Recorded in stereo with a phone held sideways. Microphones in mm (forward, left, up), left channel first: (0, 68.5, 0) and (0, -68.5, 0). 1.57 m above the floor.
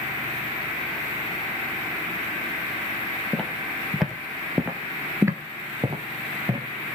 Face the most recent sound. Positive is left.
turn(degrees=-30)  # may be behind; listen again after turning